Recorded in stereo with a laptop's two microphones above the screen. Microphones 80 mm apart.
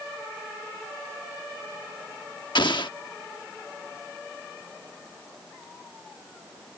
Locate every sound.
2.5 s an explosion: 75° left (ahead or behind)